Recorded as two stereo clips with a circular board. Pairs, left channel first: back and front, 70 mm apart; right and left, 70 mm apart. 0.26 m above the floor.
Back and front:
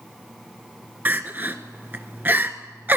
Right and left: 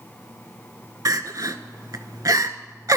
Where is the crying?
60° left, 0.7 m.